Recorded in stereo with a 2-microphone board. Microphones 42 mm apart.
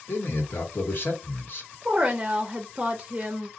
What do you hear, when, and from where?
0.1 s a man speaking: 55° left (ahead or behind), 1.3 m
1.9 s a woman speaking: 20° right (ahead or behind), 0.6 m